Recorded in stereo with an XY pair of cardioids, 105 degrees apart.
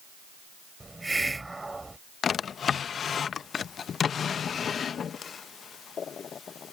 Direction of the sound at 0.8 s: 15° right.